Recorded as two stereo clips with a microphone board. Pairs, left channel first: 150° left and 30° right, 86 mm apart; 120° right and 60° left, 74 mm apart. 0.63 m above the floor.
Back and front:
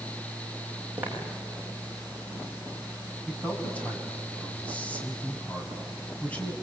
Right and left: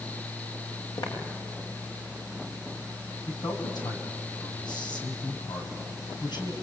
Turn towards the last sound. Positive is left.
turn(degrees=-135)